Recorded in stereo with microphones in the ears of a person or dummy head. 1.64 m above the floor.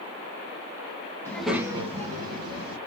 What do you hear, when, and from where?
1.2 s a child speaking: 15° left (ahead or behind), 1.1 m; by 2.8 s 65° right (ahead or behind), 1.9 m